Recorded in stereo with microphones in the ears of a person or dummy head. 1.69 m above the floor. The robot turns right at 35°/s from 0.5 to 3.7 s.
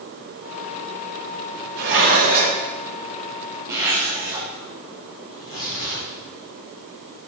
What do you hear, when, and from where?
1.8 s dishes clattering: 70° right (ahead or behind), 2.5 m; by 2.6 s 45° right (ahead or behind), 2.5 m
3.7 s a zipper: 20° right (ahead or behind), 2.5 m
5.3 s tearing paper: 35° left (ahead or behind), 2.5 m